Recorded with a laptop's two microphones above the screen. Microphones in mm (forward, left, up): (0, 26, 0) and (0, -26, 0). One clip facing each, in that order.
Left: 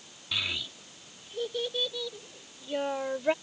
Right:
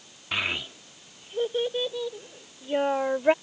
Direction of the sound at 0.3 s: 40° right (ahead or behind).